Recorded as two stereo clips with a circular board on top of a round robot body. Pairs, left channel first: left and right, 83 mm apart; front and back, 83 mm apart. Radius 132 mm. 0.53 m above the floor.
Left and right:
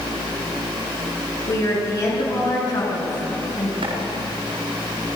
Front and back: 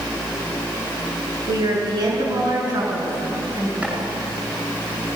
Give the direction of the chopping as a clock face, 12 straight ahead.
3 o'clock.